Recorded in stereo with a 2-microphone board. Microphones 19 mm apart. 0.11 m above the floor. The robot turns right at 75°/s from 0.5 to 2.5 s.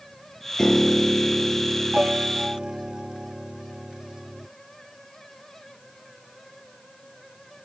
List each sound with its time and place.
0.6 s a piano: 150° left, 0.7 m; by 4.5 s 70° right, 0.7 m